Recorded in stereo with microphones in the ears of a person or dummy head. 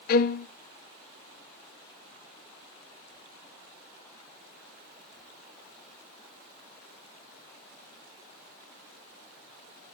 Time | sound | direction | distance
0.1 | a violin | 50° left (ahead or behind) | 0.6 m